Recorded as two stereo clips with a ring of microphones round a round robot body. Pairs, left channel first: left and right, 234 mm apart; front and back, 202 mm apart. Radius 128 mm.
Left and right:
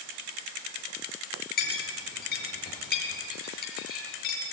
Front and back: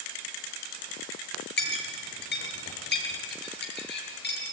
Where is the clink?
35° left, 6.5 m.